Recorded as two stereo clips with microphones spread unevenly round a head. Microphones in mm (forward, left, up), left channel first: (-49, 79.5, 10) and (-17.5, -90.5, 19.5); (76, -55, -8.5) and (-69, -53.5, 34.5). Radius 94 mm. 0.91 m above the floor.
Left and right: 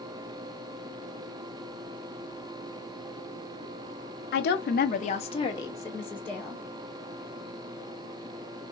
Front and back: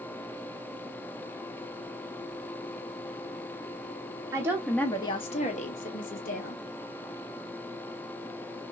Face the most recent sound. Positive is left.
turn(degrees=15)